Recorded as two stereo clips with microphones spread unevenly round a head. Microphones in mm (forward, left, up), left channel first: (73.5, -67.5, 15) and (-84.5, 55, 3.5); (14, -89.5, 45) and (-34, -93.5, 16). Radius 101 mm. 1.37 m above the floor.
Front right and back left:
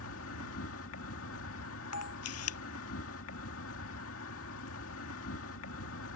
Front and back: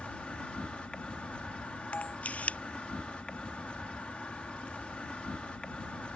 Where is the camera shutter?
45° right.